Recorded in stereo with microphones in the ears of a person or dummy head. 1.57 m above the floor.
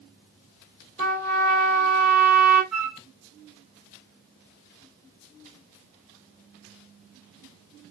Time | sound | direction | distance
1.0 | a trumpet | 20° left (ahead or behind) | 1.4 m
2.7 | a flute | 5° right (ahead or behind) | 0.8 m